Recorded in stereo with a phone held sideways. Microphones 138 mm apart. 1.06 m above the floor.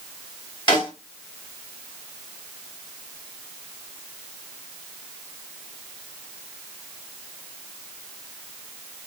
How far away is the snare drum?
About 1.8 m.